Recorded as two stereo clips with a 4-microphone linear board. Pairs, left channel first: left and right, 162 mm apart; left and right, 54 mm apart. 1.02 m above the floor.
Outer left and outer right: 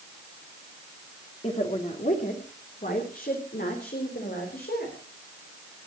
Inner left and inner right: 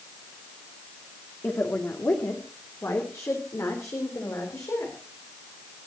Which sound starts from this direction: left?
A woman speaking, at 1.4 s.